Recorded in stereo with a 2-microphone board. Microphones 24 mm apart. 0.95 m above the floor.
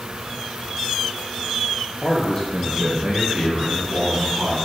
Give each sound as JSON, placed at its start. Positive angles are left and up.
{"t": 2.0, "sound": "a man speaking", "side_deg": 40, "distance_m": 0.9}